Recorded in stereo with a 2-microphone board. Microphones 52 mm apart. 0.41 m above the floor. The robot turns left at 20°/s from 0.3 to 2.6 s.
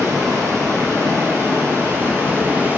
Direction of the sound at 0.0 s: 95° right.